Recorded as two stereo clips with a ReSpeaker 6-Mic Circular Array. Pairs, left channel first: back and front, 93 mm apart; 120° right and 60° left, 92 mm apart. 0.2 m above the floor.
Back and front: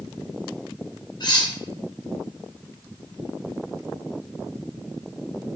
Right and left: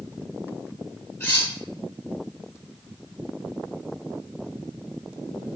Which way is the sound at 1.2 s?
Straight behind.